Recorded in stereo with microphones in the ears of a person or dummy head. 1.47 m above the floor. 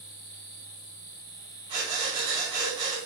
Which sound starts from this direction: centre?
Breathing, at 1.7 s.